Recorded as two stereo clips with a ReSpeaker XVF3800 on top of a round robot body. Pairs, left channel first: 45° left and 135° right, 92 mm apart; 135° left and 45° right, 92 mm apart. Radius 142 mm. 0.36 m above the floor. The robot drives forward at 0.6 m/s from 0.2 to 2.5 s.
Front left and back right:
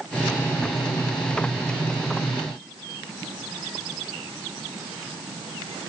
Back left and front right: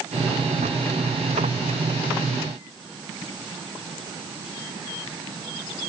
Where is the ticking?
No ticking in this recording.